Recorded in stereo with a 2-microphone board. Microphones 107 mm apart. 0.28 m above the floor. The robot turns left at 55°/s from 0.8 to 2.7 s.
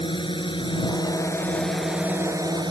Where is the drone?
55° left; by 2.7 s 50° right.